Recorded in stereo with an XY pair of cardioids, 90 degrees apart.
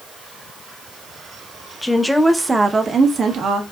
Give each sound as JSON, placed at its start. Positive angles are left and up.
{"t": 1.8, "sound": "a woman speaking", "azimuth_deg": 15, "distance_m": 0.8}